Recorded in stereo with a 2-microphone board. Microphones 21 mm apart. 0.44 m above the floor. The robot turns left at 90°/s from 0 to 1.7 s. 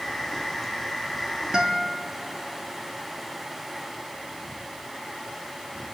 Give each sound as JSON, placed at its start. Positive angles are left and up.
{"t": 1.5, "sound": "a guitar", "side_deg": -35, "distance_m": 1.1}